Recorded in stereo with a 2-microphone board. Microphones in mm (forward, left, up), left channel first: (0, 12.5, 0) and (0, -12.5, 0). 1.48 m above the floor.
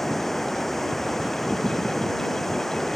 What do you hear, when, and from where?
0.0 s running water: 10° left (ahead or behind)